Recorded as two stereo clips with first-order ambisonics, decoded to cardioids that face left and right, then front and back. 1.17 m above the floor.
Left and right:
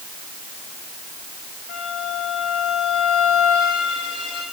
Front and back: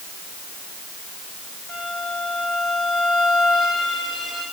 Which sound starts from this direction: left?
A violin, at 1.7 s.